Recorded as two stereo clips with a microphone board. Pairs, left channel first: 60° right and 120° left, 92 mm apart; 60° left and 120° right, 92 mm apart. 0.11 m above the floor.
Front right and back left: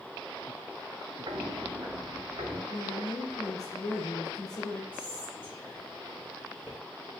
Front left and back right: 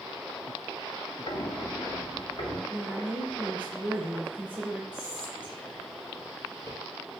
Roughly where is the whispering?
Ahead left.